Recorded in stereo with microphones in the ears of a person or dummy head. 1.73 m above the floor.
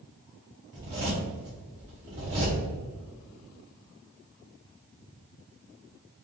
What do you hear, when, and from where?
0.7 s a zipper: 20° right (ahead or behind), 0.7 m